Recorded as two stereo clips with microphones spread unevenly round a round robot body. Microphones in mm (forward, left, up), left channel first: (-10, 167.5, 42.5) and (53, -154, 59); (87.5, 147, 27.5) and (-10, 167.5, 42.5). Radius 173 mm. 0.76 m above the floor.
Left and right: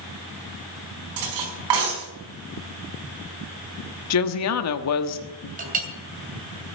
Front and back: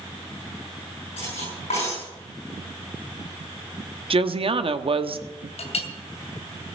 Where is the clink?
15° right, 2.5 m.